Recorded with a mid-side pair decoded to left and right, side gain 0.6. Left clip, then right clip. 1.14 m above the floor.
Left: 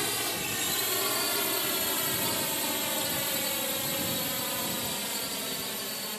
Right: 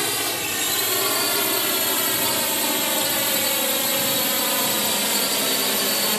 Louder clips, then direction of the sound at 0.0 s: Right 7 dB; 35° right.